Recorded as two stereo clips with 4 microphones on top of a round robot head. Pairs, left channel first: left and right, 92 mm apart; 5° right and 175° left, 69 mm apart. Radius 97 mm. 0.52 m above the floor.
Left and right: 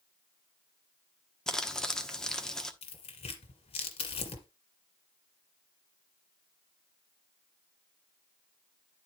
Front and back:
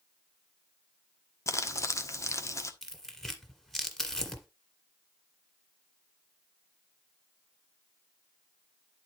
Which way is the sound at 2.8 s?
80° left.